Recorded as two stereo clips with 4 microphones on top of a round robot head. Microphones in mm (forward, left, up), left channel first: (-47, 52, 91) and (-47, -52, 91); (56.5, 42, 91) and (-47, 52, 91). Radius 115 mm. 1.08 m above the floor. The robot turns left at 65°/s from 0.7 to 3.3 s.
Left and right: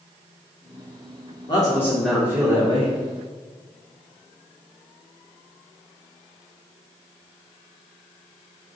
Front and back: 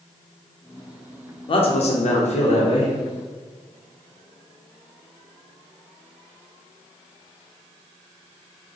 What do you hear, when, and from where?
1.5 s a man speaking: 40° left, 0.8 m; by 2.9 s 55° right, 0.8 m